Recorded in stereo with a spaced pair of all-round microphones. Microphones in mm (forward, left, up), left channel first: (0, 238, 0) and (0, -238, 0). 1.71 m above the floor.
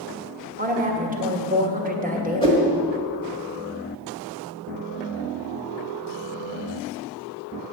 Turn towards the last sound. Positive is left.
turn(degrees=10)  # may be behind; listen again after turning